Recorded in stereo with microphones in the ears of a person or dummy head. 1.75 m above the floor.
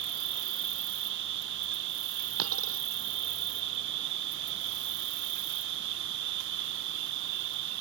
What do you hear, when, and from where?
0.0 s an insect: 65° right (ahead or behind)
2.4 s a dropped coin: 85° right